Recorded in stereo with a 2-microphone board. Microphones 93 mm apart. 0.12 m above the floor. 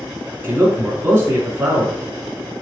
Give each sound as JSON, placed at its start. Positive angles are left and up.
{"t": 0.4, "sound": "a man speaking", "side_deg": -25, "distance_m": 1.2}